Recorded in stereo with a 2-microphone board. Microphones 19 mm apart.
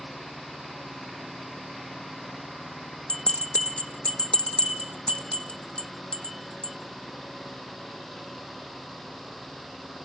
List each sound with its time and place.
3.1 s a bell: 75° left (ahead or behind), 0.9 m